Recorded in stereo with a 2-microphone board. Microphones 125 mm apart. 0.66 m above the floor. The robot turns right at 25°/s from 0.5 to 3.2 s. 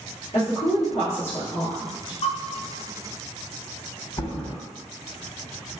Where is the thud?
35° left (ahead or behind), 1.5 m.